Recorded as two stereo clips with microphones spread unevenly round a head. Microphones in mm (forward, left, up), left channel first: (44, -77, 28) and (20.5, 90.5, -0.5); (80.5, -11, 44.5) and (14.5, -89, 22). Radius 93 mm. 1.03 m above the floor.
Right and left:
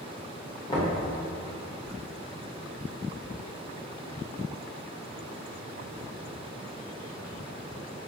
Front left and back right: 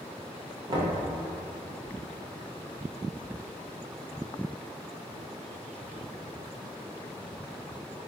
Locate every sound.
0.7 s knocking: 155° right, 0.7 m